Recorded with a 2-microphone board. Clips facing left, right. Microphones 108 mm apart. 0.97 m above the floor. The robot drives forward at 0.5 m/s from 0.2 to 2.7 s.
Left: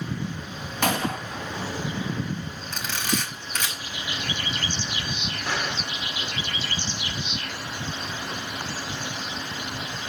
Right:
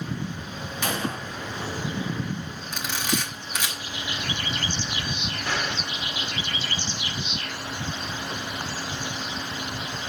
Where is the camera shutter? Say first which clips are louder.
Even; 10° right (ahead or behind), 5.5 m.